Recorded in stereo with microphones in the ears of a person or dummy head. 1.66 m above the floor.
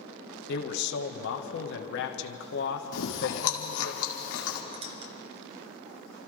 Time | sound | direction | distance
0.5 | a man speaking | 60° left (ahead or behind) | 1.4 m
2.9 | chewing | 65° left (ahead or behind) | 2 m
4.7 | a squeak | 30° right (ahead or behind) | 1.1 m